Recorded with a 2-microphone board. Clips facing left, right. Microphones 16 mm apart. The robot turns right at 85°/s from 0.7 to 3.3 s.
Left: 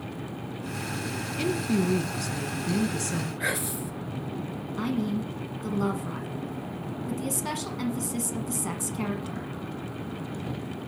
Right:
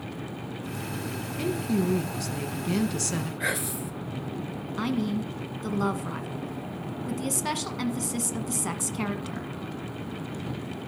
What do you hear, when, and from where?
1.4 s a woman speaking: 105° left, 1.1 m; by 3.3 s 90° right, 1.1 m
3.4 s whispering: 5° right (ahead or behind), 1.9 m
4.8 s a woman speaking: 20° right (ahead or behind), 1.2 m